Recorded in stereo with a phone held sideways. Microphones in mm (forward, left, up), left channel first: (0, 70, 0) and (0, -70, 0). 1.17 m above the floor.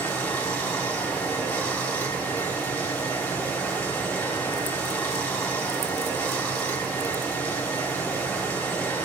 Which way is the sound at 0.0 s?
15° left (ahead or behind).